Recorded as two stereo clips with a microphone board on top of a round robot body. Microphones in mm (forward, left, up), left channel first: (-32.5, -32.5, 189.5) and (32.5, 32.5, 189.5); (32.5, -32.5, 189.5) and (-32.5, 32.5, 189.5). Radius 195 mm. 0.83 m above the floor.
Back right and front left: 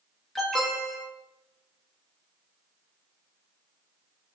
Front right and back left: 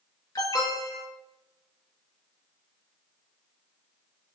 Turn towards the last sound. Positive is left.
turn(degrees=-50)